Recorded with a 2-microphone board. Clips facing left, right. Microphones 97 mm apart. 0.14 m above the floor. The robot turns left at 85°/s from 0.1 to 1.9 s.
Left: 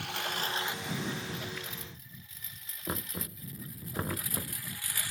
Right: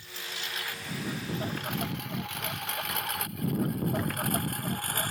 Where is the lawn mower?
70° left (ahead or behind); by 5.1 s 50° right (ahead or behind).